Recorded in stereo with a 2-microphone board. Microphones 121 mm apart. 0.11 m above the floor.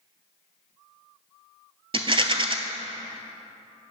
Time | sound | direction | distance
1.9 | a rattle | 45° right (ahead or behind) | 0.8 m